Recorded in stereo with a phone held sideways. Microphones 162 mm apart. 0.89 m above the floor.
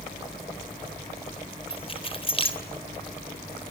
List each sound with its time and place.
1.7 s keys jangling: 35° left (ahead or behind), 3 m